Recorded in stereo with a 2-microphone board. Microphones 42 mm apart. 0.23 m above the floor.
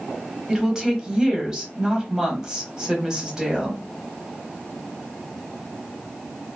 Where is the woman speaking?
15° right (ahead or behind), 0.9 m.